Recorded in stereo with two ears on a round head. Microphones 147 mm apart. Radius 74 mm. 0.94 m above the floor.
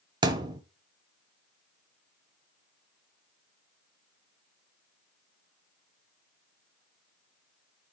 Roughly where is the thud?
Right.